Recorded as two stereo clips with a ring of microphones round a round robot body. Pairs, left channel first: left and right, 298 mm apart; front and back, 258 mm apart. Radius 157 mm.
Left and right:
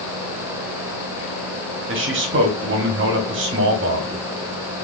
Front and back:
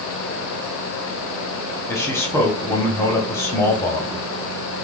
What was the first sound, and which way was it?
A man speaking, 75° right.